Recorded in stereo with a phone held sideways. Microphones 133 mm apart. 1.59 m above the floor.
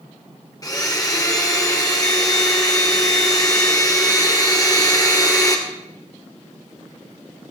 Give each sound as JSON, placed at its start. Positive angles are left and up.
{"t": 0.6, "sound": "a blender", "side_deg": 30, "distance_m": 2.5}